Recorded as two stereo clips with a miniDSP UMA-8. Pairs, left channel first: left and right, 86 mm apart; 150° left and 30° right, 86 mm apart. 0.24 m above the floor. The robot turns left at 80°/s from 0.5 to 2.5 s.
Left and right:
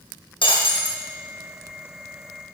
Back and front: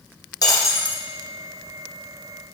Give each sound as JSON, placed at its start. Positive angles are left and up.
{"t": 0.4, "sound": "breaking glass", "azimuth_deg": 105, "distance_m": 2.0}